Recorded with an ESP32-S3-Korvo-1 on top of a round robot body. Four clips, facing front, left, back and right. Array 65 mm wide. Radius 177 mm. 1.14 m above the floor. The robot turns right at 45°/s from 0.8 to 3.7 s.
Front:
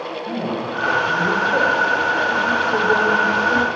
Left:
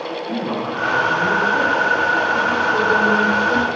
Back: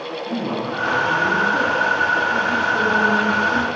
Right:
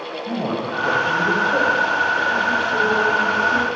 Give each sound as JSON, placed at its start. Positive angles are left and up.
{"t": 0.3, "sound": "a man speaking", "azimuth_deg": -70, "distance_m": 6.5}